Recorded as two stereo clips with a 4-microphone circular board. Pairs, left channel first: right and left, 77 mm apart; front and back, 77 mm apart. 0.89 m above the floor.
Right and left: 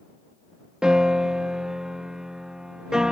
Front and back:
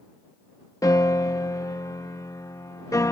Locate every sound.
0.8 s a piano: 10° left